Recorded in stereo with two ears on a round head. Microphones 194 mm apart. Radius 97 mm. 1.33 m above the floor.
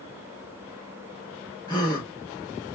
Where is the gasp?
20° left (ahead or behind), 0.8 m.